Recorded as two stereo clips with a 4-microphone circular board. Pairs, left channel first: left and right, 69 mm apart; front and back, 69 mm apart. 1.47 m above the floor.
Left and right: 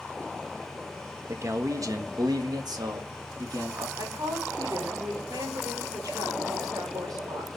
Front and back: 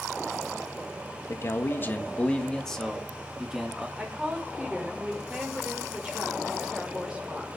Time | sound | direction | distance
1.3 | a man speaking | 45° right | 1.6 m
4.0 | a woman speaking | 105° right | 5 m